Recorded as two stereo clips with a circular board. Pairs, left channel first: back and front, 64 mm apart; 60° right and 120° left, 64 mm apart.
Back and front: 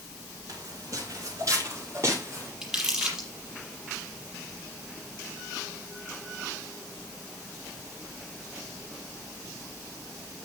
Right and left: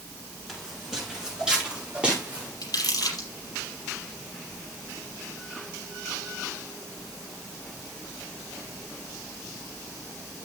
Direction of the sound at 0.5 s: 30° left.